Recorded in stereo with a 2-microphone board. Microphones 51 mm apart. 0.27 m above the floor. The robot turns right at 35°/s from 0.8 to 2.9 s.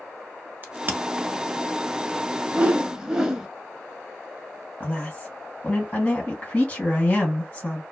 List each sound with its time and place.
0.6 s a crack: 40° right (ahead or behind), 0.7 m; by 1.0 s 35° right (ahead or behind), 0.7 m
2.5 s a whoosh: 25° right (ahead or behind), 0.5 m; by 3.5 s 10° right (ahead or behind), 0.5 m
4.8 s a woman speaking: 30° left (ahead or behind), 1.5 m